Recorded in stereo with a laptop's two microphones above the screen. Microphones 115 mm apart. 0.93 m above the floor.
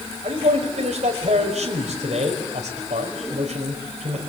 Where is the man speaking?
80° right, 5.5 m.